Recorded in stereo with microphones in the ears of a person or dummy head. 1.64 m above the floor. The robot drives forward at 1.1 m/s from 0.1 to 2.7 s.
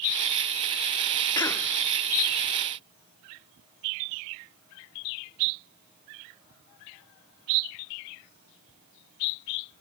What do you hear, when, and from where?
1.4 s a cough: 20° left (ahead or behind), 0.7 m; by 1.7 s 15° left (ahead or behind), 1.0 m